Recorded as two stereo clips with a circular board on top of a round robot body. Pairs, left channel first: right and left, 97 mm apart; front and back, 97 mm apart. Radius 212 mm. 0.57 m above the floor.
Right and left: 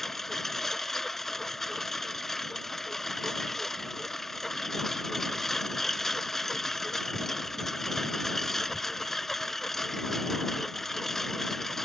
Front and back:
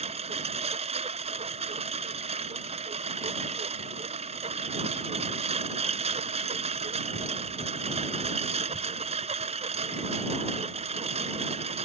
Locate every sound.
0.0 s a lawn mower: straight behind